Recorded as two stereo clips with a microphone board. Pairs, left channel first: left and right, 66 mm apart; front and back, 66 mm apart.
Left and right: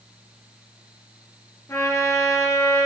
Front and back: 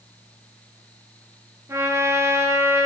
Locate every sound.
1.7 s a trumpet: 130° left, 5 m